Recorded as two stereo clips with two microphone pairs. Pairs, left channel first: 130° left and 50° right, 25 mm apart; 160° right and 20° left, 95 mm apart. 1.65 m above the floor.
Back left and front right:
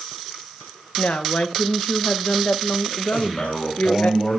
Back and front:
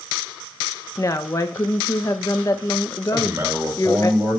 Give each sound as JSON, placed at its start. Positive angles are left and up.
{"t": 1.0, "sound": "a woman speaking", "azimuth_deg": 145, "distance_m": 1.6}
{"t": 3.1, "sound": "a man speaking", "azimuth_deg": 85, "distance_m": 8.0}